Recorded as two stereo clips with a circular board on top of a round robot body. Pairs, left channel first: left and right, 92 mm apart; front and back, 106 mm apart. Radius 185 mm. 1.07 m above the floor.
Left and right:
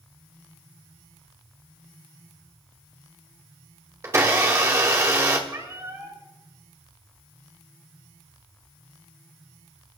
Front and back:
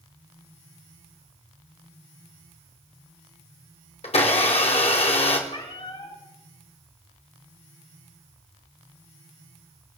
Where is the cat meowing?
30° right, 5.5 m.